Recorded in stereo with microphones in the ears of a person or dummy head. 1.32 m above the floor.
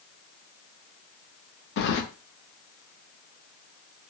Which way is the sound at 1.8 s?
50° left (ahead or behind).